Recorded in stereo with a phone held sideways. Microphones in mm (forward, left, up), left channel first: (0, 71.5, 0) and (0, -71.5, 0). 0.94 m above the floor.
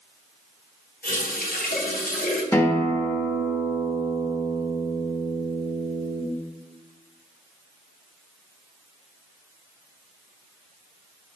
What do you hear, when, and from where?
1.0 s a running tap: 80° left, 0.8 m
2.5 s a guitar: 15° left (ahead or behind), 0.6 m